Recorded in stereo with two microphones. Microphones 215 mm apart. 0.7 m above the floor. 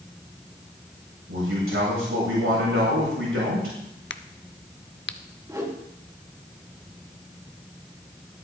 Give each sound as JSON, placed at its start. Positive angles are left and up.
{"t": 1.3, "sound": "a man speaking", "side_deg": -85, "distance_m": 5.5}
{"t": 4.1, "sound": "a crack", "side_deg": 60, "distance_m": 0.6}
{"t": 5.5, "sound": "a whoosh", "side_deg": -15, "distance_m": 1.9}